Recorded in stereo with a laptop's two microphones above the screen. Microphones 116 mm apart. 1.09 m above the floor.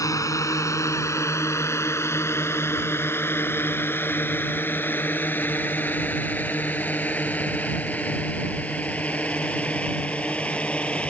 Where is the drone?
25° left (ahead or behind); by 11.1 s 10° left (ahead or behind).